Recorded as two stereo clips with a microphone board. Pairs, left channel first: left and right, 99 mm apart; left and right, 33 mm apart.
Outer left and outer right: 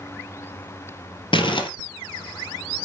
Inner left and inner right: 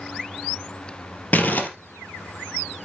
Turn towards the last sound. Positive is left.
turn(degrees=55)  # may be behind; listen again after turning